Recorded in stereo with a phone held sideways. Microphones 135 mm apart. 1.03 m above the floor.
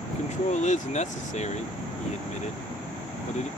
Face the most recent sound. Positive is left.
turn(degrees=60)  # may be behind; listen again after turning